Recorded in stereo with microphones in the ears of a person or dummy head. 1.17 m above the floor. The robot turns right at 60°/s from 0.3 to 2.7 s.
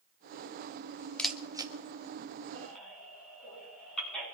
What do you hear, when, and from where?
1.2 s a camera shutter: 5° left (ahead or behind), 0.8 m; by 1.7 s 25° right (ahead or behind), 0.8 m
2.5 s a baby crying: 15° left (ahead or behind), 8.5 m; by 4.2 s centre (ahead or behind), 8.5 m